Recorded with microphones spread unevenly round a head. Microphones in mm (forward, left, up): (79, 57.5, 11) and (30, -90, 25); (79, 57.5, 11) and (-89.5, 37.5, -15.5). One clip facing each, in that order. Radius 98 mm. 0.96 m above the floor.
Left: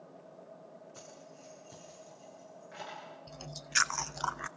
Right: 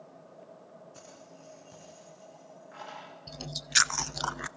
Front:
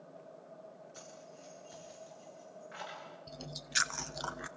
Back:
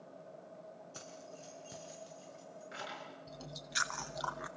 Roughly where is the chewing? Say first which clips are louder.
Right 4 dB, front 1 dB; ahead right.